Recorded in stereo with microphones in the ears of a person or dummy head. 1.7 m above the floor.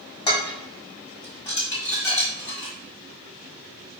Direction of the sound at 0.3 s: 25° left (ahead or behind).